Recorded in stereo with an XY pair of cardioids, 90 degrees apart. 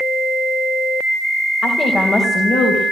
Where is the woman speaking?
65° left, 4.5 m; by 2.8 s 55° left, 6 m.